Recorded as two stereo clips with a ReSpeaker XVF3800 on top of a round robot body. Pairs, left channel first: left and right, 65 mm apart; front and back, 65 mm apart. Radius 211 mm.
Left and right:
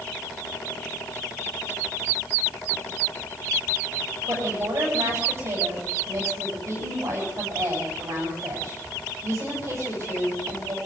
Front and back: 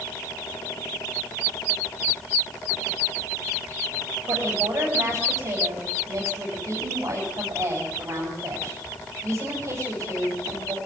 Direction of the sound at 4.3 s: 130° right.